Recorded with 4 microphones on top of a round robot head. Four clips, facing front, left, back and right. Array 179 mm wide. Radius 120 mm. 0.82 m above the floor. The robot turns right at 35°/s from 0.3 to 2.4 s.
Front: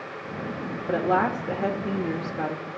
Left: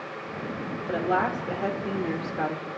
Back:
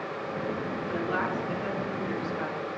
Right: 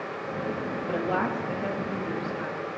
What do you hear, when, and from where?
0.9 s a woman speaking: 10° right, 1.5 m; by 2.7 s 40° left, 1.5 m